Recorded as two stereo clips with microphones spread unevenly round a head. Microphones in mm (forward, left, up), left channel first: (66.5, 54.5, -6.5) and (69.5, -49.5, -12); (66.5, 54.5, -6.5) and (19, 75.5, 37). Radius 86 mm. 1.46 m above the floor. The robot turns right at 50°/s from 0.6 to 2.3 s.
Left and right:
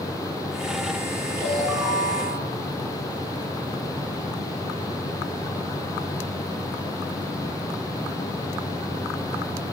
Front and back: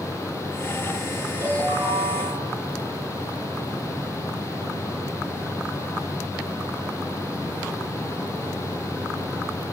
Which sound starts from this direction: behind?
A ringtone, at 1.4 s.